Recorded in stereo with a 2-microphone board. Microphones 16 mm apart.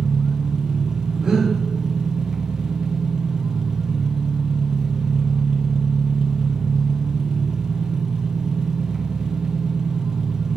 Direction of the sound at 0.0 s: 50° right (ahead or behind).